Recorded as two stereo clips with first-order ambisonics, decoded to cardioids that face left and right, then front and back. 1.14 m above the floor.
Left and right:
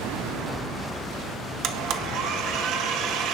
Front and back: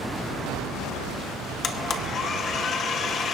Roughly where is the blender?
Ahead right.